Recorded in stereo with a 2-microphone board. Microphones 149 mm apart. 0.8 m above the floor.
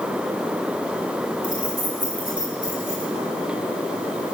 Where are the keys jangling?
60° left (ahead or behind), 3.5 m.